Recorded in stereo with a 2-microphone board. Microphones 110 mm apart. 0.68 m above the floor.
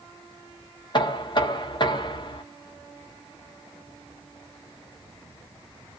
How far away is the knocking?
About 0.6 m.